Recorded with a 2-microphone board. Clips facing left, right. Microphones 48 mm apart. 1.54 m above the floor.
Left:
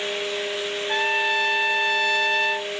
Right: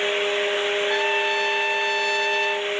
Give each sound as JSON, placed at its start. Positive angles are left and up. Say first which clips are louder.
{"t": 0.9, "sound": "a trumpet", "louder": "even", "side_deg": 30, "distance_m": 0.7}